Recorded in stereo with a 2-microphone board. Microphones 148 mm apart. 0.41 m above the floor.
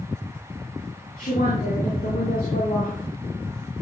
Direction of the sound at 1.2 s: 65° left (ahead or behind).